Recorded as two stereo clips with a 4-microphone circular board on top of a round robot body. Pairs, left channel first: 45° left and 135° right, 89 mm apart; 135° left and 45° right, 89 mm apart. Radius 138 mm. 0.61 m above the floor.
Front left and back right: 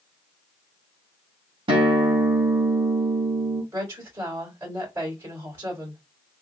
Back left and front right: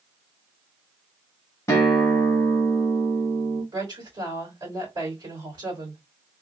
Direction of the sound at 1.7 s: 165° right.